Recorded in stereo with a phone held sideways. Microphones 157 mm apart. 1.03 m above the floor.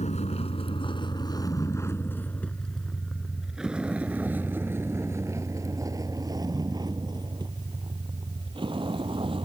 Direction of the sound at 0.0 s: 45° left (ahead or behind).